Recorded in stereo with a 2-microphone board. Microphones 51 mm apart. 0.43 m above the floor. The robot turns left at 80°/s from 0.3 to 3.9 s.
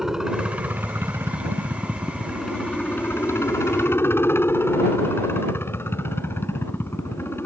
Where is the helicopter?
10° right; by 7.5 s 60° left.